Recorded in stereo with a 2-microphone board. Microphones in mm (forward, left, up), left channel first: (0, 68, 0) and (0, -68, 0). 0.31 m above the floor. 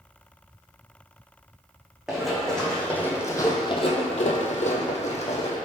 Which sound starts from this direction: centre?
Running footsteps, at 2.1 s.